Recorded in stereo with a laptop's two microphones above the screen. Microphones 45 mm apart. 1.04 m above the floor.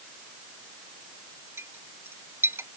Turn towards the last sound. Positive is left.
turn(degrees=-70)  # may be behind; listen again after turning